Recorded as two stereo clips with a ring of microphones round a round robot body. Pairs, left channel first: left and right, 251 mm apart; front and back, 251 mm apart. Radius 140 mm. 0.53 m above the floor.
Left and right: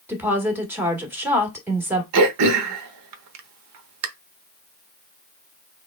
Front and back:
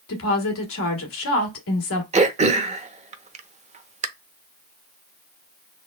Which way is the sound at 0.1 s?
10° right.